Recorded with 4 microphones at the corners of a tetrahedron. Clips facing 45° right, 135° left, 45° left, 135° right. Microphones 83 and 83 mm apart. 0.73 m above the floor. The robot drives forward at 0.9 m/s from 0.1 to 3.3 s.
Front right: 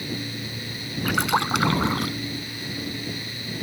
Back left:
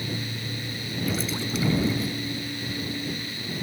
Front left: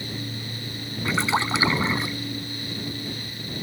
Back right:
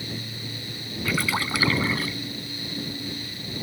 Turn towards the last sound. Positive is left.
turn(degrees=-30)